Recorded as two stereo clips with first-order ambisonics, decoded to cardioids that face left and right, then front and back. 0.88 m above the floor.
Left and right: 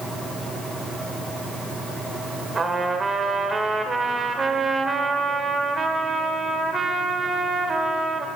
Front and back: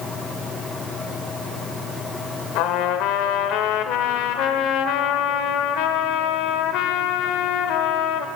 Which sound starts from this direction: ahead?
A trumpet, at 2.5 s.